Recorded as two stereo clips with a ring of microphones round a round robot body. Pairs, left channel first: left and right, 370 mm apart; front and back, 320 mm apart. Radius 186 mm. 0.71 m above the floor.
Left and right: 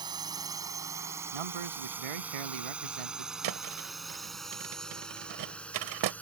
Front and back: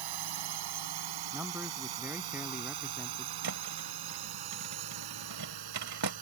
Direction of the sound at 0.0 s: 170° right.